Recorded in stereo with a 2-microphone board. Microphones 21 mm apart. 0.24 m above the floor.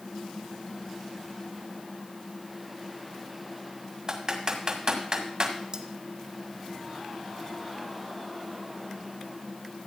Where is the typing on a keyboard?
35° right (ahead or behind), 1.9 m.